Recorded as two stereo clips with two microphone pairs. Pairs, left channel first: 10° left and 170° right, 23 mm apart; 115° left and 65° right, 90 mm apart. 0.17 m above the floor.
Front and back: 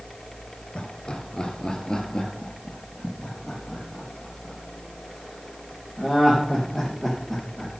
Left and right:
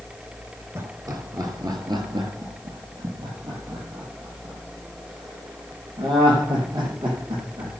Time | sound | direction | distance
0.8 | laughter | 20° right | 2 m